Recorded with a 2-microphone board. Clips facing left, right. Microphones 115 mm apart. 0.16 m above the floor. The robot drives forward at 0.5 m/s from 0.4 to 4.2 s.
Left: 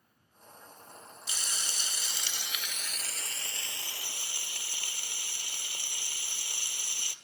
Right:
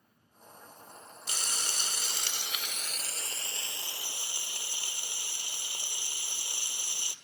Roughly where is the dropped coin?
No dropped coin in this recording.